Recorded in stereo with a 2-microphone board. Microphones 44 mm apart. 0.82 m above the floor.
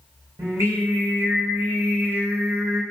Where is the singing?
75° right (ahead or behind), 3 m.